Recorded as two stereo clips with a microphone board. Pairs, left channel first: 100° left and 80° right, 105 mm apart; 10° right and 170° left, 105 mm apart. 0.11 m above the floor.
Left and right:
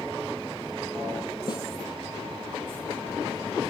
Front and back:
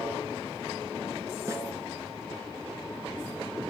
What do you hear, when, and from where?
1.5 s a snare drum: 120° left, 0.7 m